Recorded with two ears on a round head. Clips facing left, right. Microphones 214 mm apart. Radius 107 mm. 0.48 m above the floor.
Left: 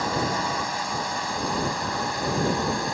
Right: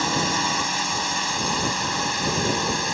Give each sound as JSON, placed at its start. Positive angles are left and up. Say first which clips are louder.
{"t": 0.0, "sound": "a drone", "louder": "right 1 dB", "side_deg": -45}